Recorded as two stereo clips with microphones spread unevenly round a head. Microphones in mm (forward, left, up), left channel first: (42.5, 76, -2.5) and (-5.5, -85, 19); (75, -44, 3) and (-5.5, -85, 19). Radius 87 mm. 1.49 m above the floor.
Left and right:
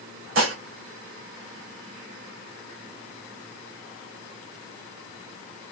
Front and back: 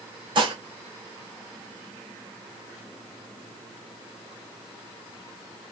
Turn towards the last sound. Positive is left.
turn(degrees=-120)